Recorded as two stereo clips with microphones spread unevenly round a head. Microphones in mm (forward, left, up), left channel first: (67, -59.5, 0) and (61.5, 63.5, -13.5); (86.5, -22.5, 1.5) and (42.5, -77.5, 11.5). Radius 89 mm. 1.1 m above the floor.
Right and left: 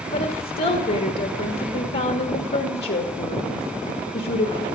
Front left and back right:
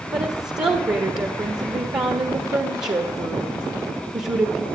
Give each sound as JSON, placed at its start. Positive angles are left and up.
{"t": 0.1, "sound": "a woman speaking", "azimuth_deg": -95, "distance_m": 1.4}